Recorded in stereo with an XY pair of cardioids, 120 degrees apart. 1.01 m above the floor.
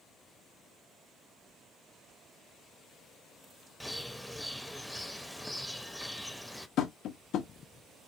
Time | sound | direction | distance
3.8 | a bird | 5° left | 0.6 m
6.8 | tapping | 65° left | 0.8 m